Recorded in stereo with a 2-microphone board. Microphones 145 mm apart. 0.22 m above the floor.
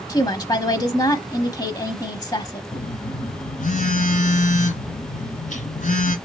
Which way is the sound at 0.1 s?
25° left (ahead or behind).